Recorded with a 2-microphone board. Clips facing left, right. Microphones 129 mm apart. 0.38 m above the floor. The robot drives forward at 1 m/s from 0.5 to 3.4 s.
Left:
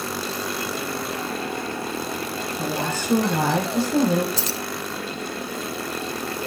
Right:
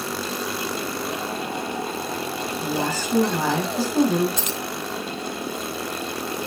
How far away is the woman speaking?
About 10 m.